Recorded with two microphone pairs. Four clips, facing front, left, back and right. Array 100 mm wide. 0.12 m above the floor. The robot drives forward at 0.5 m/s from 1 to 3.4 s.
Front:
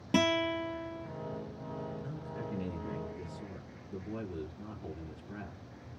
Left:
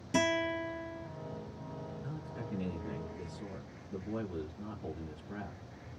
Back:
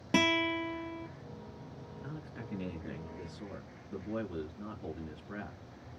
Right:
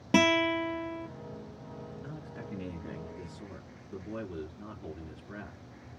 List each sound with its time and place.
0.1 s a guitar: 105° right, 0.9 m
2.0 s a man speaking: 145° right, 1.9 m; by 5.6 s 160° right, 2.5 m